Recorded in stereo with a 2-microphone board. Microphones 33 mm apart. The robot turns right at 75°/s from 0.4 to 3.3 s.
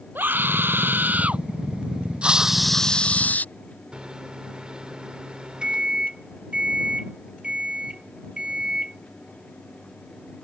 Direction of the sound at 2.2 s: 30° right.